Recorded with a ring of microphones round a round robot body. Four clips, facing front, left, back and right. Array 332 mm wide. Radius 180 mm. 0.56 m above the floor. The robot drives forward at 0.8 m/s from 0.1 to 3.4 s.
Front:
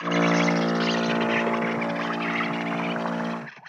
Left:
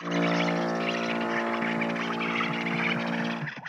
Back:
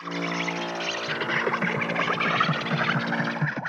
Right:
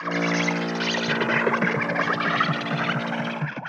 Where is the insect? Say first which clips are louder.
Right 2 dB, front 8 dB; 60° right; by 3.7 s 145° right.